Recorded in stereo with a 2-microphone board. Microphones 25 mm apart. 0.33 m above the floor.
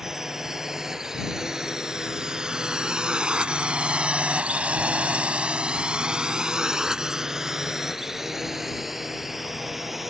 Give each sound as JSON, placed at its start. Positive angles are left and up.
{"t": 0.0, "sound": "a drone", "side_deg": -20}